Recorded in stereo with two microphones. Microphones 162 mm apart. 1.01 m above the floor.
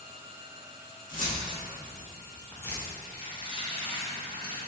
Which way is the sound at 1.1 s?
55° left (ahead or behind).